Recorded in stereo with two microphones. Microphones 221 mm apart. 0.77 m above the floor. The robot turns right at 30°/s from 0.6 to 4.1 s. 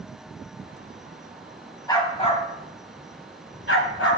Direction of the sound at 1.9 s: 15° left (ahead or behind).